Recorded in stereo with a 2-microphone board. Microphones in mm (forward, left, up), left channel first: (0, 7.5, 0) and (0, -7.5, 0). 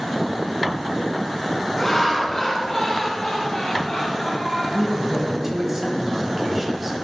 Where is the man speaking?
20° right (ahead or behind), 1.4 m.